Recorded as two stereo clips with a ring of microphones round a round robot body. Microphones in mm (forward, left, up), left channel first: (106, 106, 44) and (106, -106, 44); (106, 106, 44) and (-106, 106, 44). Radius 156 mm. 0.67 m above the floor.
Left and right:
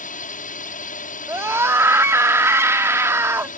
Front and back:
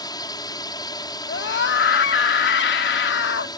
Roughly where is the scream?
Ahead.